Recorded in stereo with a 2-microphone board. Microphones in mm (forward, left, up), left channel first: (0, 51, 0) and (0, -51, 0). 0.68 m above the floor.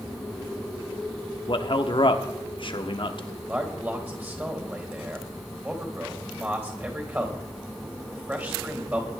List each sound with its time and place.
1.5 s a man speaking: 55° left (ahead or behind), 1.1 m
3.5 s a man speaking: 20° right (ahead or behind), 3.5 m